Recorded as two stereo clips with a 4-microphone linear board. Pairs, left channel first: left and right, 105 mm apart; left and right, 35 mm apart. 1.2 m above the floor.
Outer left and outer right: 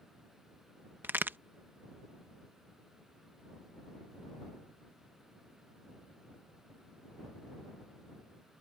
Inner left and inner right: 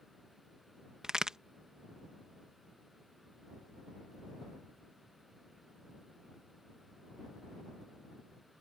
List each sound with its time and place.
1.0 s a crack: 20° right (ahead or behind)